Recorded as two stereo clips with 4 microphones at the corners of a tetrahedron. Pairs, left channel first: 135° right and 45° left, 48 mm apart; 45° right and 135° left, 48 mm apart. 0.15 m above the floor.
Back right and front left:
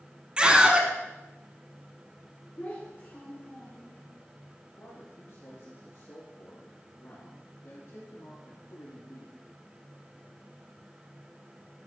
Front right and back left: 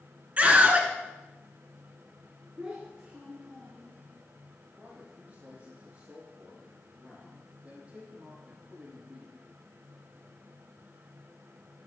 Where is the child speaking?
165° right, 1.5 m.